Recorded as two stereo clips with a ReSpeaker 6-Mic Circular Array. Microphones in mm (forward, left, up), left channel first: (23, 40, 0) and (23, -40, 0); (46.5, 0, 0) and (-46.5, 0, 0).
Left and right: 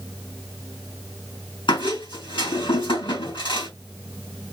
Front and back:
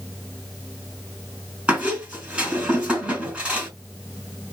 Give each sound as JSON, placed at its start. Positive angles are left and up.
{"t": 1.7, "sound": "a squeak", "azimuth_deg": 100, "distance_m": 4.0}